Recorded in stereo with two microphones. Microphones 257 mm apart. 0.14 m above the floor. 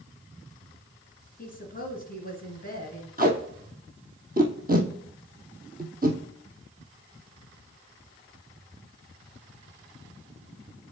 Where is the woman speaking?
35° left (ahead or behind), 1.4 m.